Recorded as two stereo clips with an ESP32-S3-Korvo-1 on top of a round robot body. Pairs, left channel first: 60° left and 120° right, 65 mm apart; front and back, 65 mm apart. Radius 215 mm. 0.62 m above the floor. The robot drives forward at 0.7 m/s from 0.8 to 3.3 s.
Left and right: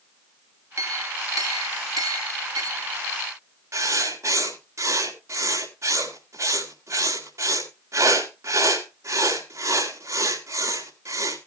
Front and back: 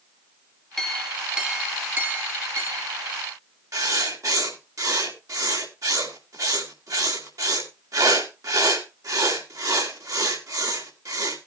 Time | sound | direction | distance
0.8 | a clink | 85° right | 1.3 m
3.7 | writing | 155° right | 3.5 m